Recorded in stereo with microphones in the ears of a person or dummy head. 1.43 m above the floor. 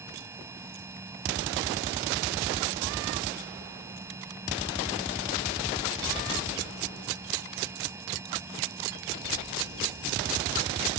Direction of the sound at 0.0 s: 15° right (ahead or behind).